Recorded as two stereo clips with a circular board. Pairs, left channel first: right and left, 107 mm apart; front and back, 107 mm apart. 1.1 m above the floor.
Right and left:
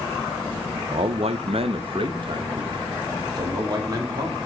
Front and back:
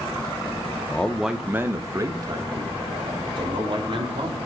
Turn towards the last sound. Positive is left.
turn(degrees=145)